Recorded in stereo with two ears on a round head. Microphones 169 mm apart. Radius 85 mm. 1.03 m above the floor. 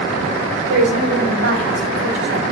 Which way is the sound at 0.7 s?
65° right (ahead or behind).